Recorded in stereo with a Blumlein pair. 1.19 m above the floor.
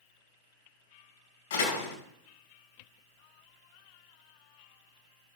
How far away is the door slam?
About 5 m.